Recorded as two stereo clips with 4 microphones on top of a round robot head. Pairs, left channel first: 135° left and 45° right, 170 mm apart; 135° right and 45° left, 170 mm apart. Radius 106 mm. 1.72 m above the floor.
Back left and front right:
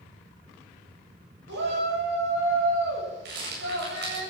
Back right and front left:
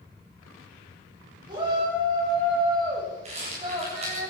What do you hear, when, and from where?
1.5 s a shout: 25° right, 9 m
3.2 s a rattle: 15° right, 8.5 m